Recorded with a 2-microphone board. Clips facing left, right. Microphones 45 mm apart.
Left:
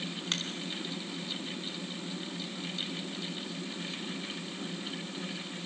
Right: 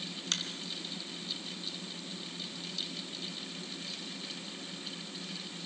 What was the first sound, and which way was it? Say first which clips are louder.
A finger snap: left 1 dB; 25° left (ahead or behind).